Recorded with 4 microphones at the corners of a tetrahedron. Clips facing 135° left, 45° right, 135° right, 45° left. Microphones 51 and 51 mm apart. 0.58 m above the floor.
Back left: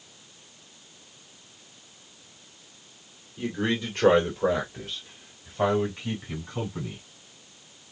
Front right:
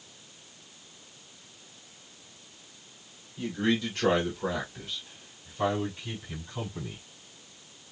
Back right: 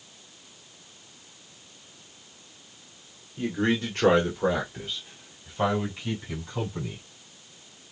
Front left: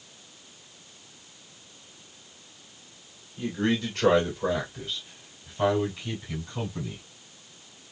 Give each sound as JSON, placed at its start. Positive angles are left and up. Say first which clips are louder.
{"t": 3.4, "sound": "a man speaking", "louder": "even, back right 1 dB", "azimuth_deg": -165, "distance_m": 1.6}